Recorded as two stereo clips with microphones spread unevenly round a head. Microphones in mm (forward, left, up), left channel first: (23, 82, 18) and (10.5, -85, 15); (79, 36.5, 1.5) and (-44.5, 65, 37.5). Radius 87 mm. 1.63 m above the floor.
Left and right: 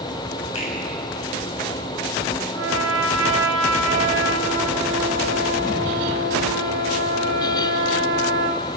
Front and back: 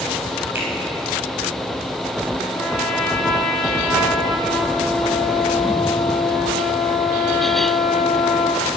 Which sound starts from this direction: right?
A trumpet, at 2.5 s.